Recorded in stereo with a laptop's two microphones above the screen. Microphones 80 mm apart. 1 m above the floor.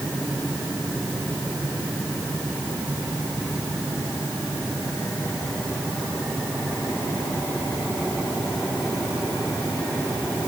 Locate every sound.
Only background noise.